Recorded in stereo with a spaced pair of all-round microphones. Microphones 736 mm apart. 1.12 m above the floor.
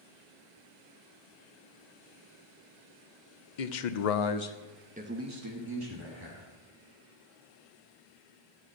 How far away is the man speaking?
About 0.9 m.